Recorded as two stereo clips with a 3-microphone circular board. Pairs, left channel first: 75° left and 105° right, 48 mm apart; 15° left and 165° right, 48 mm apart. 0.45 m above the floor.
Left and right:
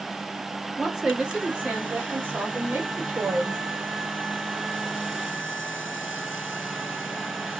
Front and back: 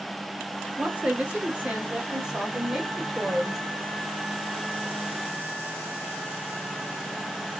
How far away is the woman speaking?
About 1.0 m.